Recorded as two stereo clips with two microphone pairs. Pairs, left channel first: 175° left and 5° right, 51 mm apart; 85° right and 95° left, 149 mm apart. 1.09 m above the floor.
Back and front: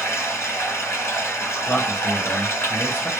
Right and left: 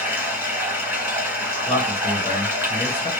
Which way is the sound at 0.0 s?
170° left.